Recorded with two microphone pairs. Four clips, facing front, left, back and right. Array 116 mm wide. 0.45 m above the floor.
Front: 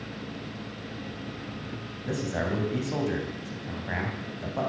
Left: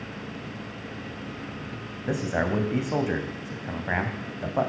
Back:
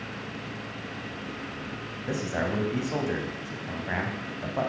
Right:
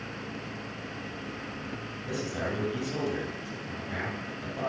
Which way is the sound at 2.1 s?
100° left.